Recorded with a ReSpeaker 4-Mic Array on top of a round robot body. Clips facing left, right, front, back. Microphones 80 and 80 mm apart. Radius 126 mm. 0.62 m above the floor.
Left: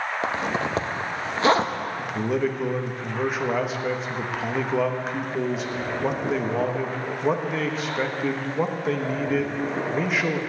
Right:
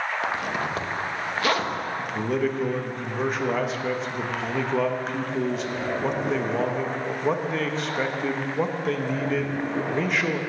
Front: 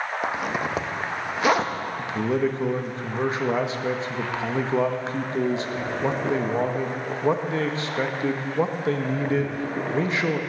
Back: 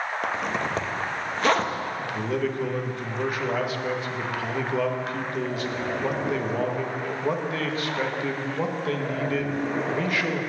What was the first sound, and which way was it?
A zipper, 70° left.